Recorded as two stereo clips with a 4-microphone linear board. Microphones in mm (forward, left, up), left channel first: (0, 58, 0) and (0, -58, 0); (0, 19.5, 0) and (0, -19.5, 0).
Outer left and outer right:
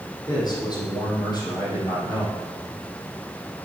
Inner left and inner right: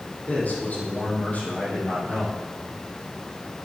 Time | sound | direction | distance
0.3 | a man speaking | 35° left (ahead or behind) | 4 m